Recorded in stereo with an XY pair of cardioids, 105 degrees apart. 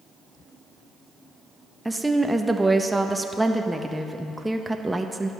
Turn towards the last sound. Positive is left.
turn(degrees=-10)